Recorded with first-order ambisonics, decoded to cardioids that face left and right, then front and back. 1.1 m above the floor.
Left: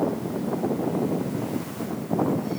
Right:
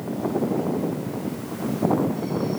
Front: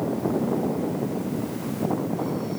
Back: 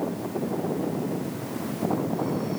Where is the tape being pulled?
No tape being pulled in this recording.